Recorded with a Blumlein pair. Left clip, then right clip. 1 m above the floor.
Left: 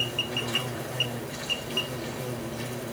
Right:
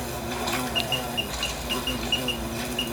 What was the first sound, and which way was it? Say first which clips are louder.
An insect: left 1 dB; 50° right.